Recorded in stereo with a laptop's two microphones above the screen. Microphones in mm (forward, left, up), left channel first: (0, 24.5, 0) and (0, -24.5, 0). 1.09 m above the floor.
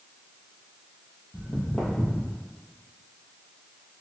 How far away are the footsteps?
About 1.3 m.